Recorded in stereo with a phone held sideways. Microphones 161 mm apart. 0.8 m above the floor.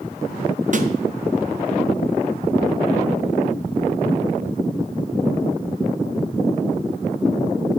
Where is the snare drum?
55° right (ahead or behind), 0.6 m.